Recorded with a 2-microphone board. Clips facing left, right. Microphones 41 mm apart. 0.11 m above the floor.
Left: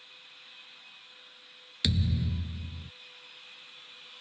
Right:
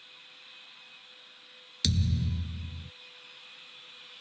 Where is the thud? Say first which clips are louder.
Left 1 dB; 25° left (ahead or behind).